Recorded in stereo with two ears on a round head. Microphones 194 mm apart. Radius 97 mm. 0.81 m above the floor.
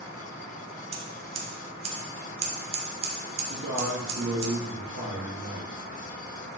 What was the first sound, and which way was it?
Scissors, 30° right (ahead or behind).